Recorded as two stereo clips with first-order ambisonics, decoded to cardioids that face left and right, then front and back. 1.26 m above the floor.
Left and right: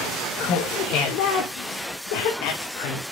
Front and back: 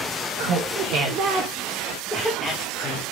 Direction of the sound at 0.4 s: 140° left.